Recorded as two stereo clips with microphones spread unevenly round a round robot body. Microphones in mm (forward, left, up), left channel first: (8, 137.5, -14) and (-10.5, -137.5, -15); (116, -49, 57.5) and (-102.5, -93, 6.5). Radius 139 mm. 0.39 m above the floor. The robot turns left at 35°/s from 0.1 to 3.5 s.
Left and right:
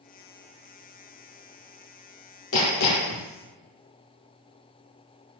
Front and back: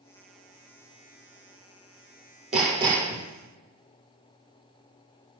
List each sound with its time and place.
2.5 s hammering: 125° left, 3.5 m; by 3.2 s 100° left, 3.5 m